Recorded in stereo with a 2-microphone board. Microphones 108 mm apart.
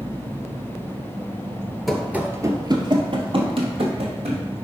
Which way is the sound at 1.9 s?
Centre (ahead or behind).